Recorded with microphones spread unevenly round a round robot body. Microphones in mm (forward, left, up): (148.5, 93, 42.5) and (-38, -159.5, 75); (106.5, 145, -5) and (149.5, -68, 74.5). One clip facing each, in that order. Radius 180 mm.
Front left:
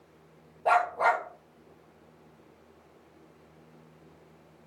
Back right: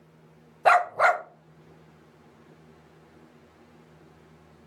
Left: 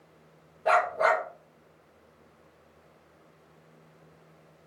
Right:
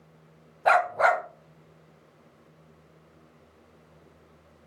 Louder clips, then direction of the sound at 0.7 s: Back right 4 dB, right 2 dB; 105° right.